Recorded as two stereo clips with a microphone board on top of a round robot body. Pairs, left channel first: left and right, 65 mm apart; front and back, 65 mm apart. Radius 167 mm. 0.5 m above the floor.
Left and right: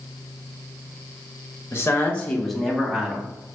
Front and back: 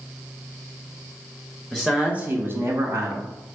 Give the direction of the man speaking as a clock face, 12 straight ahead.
9 o'clock.